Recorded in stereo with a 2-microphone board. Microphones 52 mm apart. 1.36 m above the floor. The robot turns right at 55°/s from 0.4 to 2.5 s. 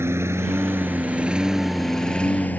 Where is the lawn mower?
55° right (ahead or behind); by 2.6 s 35° left (ahead or behind).